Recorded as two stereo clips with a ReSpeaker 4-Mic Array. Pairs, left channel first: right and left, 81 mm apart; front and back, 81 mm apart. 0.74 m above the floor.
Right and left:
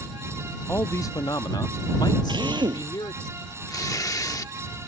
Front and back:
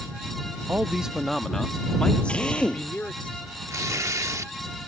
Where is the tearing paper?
130° right.